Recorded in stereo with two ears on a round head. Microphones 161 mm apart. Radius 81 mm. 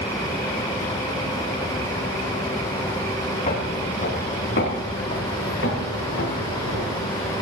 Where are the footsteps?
40° left (ahead or behind), 3 m; by 6.9 s 80° left, 6.5 m.